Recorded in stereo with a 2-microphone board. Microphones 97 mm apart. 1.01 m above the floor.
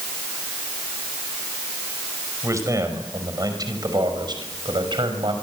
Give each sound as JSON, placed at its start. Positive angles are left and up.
{"t": 2.4, "sound": "a man speaking", "side_deg": -30, "distance_m": 5.5}